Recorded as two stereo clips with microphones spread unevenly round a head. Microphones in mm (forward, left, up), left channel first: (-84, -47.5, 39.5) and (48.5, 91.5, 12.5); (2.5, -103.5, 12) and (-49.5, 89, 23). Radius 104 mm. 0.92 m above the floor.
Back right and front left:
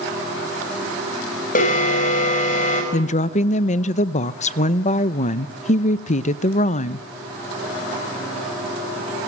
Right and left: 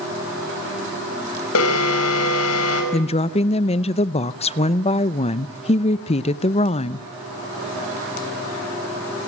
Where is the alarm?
80° right, 5 m.